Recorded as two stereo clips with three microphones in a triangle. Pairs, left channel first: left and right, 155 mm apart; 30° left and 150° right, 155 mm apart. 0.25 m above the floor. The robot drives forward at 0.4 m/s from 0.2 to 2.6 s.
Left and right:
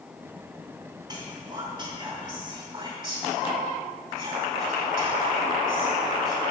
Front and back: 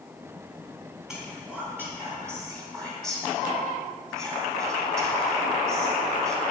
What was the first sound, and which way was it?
Whispering, 65° right.